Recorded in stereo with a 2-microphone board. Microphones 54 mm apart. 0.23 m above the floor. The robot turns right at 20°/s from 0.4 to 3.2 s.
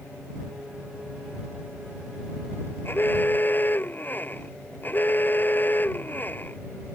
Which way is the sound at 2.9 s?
45° left (ahead or behind).